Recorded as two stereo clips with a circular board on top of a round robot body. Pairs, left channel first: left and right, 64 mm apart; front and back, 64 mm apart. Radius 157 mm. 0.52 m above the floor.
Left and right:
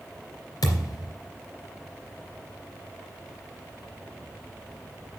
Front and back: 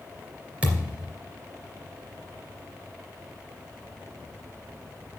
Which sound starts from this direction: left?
A thud, at 0.6 s.